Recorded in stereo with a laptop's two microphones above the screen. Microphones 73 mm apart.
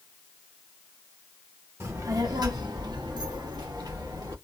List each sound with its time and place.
1.8 s a child speaking: 40° right (ahead or behind), 0.7 m; by 4.3 s 70° right (ahead or behind), 1.8 m